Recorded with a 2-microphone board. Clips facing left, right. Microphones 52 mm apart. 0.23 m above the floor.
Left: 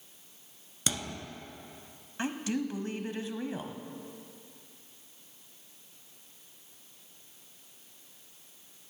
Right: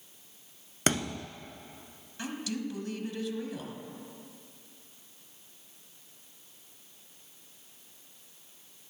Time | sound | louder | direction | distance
0.9 | a thud | right 6 dB | 50° right (ahead or behind) | 0.8 m
2.2 | a woman speaking | left 3 dB | 30° left (ahead or behind) | 1.1 m